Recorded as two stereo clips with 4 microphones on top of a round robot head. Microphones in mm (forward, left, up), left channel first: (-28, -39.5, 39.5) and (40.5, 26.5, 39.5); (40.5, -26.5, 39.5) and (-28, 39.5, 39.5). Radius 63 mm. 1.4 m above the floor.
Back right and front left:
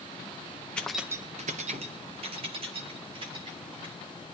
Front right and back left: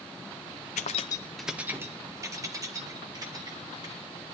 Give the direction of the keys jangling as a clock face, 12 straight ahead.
2 o'clock.